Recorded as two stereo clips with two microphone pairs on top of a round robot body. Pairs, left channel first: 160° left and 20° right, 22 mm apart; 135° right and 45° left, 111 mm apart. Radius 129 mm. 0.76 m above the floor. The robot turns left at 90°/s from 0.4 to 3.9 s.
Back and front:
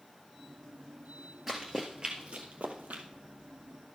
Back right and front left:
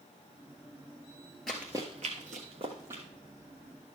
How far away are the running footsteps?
About 0.7 m.